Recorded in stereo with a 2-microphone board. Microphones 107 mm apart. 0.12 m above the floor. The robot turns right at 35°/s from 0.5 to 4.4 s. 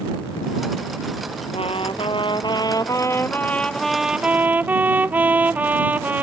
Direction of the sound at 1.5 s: 95° left.